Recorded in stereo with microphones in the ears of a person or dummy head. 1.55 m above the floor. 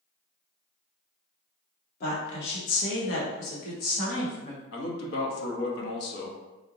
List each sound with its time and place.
2.0 s a woman speaking: 50° left (ahead or behind), 0.7 m; by 4.6 s 45° left (ahead or behind), 1.4 m
4.7 s a man speaking: 65° left (ahead or behind), 0.7 m